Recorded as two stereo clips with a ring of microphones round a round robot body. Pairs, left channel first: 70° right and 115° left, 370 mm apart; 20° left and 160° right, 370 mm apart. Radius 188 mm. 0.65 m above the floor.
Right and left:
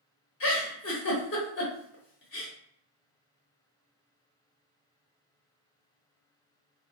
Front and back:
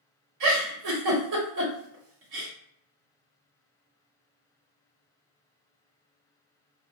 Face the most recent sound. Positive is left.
turn(degrees=-120)